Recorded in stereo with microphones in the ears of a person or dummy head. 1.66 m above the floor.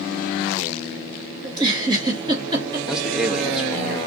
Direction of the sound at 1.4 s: 20° right (ahead or behind).